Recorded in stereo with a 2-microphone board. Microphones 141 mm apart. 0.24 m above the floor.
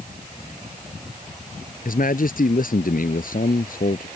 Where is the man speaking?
75° left (ahead or behind).